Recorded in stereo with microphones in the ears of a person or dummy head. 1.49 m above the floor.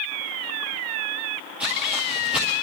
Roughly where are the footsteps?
Centre.